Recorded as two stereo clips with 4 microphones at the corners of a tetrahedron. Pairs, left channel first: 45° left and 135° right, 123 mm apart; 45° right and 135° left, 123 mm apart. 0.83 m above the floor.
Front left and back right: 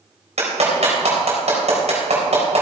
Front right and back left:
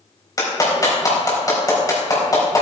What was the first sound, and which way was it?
A clap, 105° right.